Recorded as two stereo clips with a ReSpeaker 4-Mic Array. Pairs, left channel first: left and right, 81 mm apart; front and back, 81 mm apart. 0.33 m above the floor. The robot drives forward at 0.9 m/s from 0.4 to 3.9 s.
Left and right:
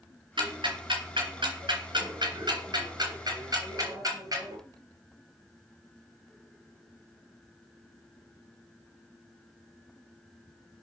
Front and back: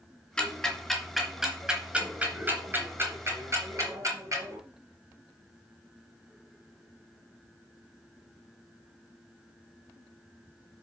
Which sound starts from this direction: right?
Ticking, at 0.4 s.